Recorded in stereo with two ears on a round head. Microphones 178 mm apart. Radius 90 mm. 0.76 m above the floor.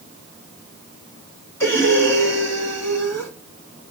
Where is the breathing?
10° left (ahead or behind), 1.6 m.